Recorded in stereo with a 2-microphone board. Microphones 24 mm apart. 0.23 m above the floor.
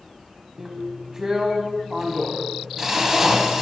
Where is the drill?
25° right (ahead or behind), 1.2 m.